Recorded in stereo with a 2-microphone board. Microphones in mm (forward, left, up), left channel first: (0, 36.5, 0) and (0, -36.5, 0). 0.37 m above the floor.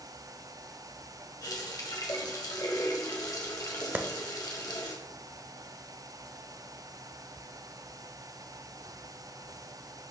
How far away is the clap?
About 0.6 m.